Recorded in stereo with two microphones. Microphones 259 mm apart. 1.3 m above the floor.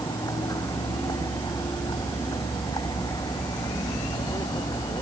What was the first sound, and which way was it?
A vehicle, 15° left (ahead or behind).